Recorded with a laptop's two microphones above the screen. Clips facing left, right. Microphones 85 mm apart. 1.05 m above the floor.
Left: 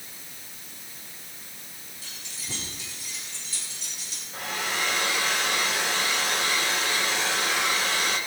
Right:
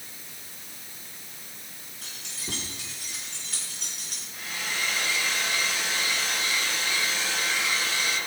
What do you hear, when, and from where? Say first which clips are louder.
2.0 s keys jangling: right 3 dB; 85° right, 8.5 m; by 4.2 s 60° right (ahead or behind), 7 m
4.3 s a hair dryer: left 4 dB; 85° left, 2.5 m